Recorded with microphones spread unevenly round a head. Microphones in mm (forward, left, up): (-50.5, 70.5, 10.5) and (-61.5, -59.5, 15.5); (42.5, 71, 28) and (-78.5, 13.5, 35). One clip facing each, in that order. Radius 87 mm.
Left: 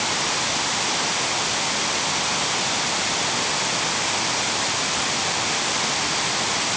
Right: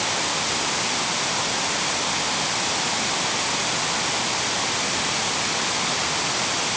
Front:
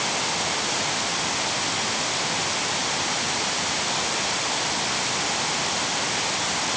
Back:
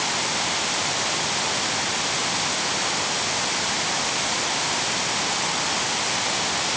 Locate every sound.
Only background noise.